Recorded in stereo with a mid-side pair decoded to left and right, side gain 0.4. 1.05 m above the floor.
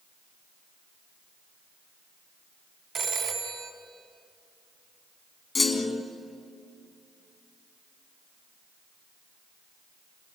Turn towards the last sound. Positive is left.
turn(degrees=40)